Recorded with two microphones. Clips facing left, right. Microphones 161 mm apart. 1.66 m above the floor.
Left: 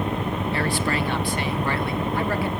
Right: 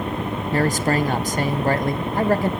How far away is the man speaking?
About 1.1 m.